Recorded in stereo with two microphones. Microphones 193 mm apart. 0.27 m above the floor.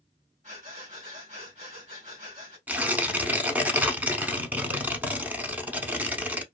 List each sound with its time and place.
0.4 s breathing: 40° right (ahead or behind), 1.8 m
2.7 s tearing paper: 10° right (ahead or behind), 0.6 m